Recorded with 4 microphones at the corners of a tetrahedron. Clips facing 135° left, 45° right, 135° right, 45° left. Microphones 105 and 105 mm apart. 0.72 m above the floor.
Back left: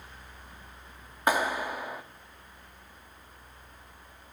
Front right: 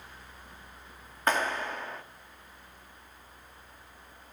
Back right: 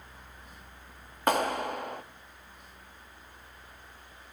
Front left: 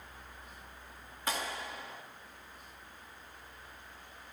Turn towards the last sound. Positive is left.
turn(degrees=-150)